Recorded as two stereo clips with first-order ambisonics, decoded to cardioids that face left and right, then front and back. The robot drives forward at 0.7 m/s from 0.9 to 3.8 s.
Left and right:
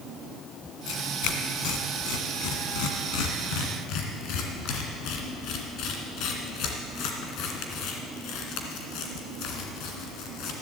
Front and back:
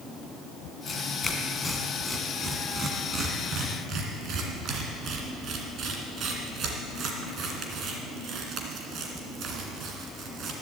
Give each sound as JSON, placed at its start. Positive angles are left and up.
{"t": 0.9, "sound": "tearing paper", "azimuth_deg": 70, "distance_m": 1.9}